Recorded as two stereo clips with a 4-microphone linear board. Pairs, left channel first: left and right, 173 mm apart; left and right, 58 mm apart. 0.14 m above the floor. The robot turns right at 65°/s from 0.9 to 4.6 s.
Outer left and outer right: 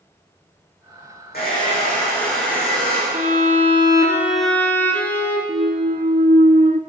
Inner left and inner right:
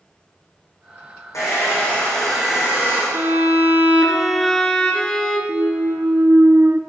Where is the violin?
80° right, 1.7 m; by 5.4 s 15° left, 1.7 m.